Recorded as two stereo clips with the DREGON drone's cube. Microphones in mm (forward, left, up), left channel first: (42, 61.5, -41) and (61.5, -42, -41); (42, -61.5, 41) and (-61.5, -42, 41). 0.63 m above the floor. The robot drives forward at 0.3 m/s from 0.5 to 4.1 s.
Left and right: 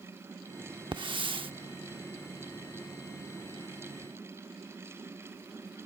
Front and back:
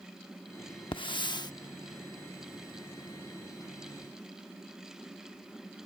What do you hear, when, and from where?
0.9 s a hiss: 45° right; by 1.5 s 60° right